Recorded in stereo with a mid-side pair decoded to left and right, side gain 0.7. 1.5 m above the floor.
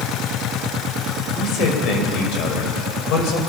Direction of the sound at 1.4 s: 55° left.